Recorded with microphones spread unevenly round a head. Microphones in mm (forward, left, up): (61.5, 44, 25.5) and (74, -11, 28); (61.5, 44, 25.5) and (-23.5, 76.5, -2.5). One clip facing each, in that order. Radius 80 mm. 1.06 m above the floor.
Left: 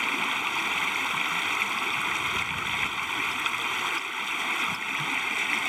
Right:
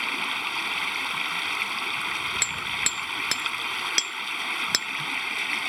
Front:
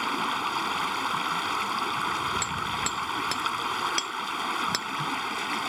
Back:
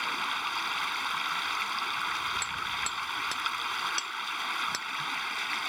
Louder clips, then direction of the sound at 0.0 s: Left 1 dB, front 5 dB; 20° left.